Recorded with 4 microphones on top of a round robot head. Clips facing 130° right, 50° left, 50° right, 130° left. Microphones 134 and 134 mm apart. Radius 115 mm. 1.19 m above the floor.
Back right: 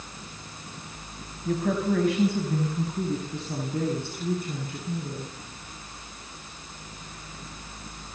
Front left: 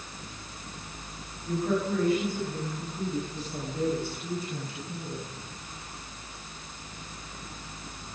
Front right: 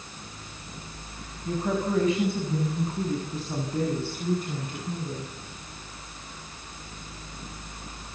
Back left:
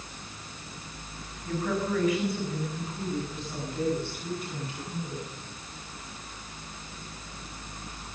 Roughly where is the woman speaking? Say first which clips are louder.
Back right 2 dB, front right 2 dB; behind right.